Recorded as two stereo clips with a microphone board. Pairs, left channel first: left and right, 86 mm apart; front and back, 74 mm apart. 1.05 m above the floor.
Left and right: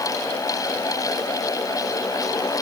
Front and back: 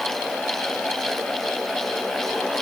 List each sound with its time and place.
Only background noise.